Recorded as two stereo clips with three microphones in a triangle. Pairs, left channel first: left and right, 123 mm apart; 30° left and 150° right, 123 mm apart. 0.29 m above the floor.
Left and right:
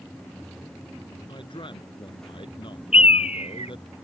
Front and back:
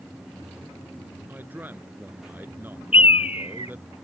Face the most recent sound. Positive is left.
turn(degrees=60)